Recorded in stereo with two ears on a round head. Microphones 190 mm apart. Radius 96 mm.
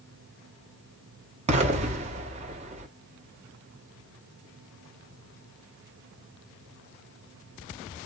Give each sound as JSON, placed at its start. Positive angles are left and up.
{"t": 1.5, "sound": "an explosion", "side_deg": -30, "distance_m": 0.8}